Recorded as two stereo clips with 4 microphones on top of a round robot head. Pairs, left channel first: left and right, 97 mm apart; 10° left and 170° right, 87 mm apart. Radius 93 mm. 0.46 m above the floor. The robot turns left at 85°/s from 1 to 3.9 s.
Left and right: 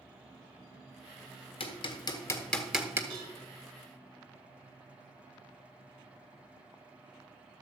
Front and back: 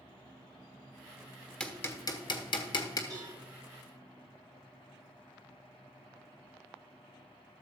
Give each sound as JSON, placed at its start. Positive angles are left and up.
{"t": 1.6, "sound": "hammering", "azimuth_deg": 90, "distance_m": 1.6}
{"t": 3.1, "sound": "a cowbell", "azimuth_deg": -120, "distance_m": 3.5}